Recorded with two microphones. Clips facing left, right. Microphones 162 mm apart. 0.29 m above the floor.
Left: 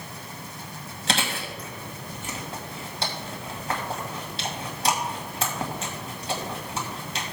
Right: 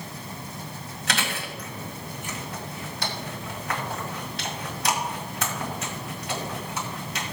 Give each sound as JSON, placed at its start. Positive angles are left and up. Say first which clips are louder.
{"t": 1.1, "sound": "chewing", "louder": "left 2 dB", "side_deg": 30, "distance_m": 2.0}